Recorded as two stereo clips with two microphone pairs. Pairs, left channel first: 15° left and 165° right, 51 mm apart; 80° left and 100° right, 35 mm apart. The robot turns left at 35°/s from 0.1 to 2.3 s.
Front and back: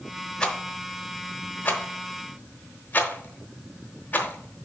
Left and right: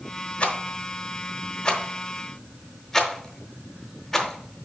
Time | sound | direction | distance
0.4 | a rattle | 85° left | 0.9 m